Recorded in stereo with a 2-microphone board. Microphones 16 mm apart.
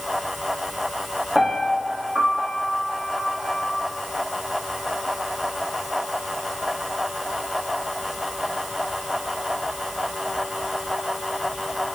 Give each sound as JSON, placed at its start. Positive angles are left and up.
{"t": 1.4, "sound": "a piano", "side_deg": -25, "distance_m": 3.5}